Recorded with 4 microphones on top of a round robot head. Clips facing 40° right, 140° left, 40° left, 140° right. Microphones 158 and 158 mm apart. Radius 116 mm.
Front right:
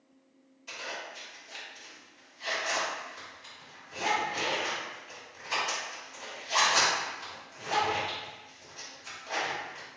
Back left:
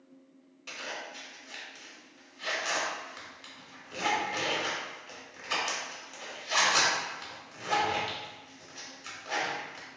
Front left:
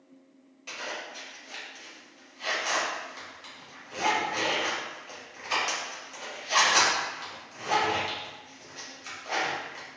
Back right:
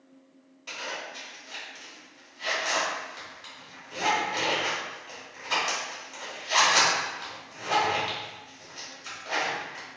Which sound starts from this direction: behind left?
A zipper, at 0.7 s.